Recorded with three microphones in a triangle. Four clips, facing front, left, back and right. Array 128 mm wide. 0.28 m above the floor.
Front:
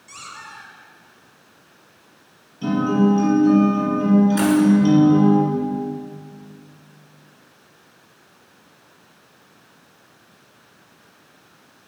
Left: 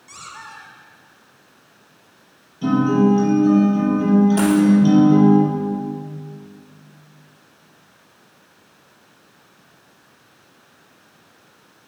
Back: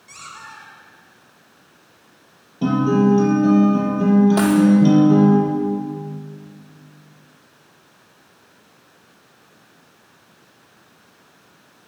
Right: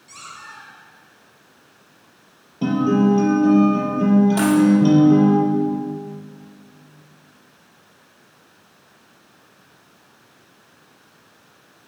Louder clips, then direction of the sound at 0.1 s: Left 1 dB, even; 90° left.